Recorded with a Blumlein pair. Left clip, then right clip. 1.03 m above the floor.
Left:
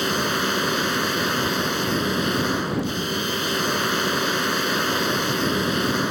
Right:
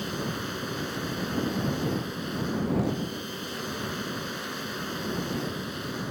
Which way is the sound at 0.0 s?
35° left.